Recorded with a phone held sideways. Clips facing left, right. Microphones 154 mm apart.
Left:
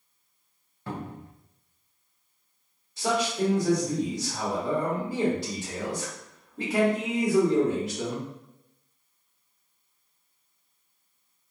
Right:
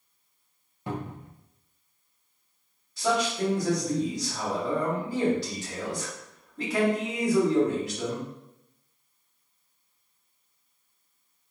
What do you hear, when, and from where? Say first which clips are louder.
0.9 s a cupboard door: right 2 dB; 15° right (ahead or behind), 0.6 m
3.0 s a man speaking: even; 20° left (ahead or behind), 1.1 m